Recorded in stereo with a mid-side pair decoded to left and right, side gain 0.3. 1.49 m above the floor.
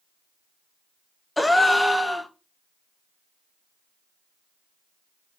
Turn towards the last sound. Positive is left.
turn(degrees=15)